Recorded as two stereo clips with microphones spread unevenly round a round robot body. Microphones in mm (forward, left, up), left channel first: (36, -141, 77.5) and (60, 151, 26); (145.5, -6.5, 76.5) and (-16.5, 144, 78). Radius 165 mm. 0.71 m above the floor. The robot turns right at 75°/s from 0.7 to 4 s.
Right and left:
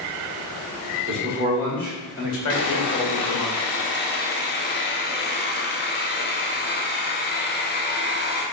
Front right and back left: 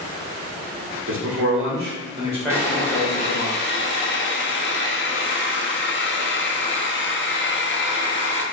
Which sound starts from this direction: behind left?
A man speaking, at 1.1 s.